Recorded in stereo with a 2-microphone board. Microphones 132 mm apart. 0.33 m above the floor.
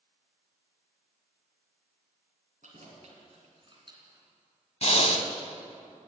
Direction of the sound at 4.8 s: 55° left (ahead or behind).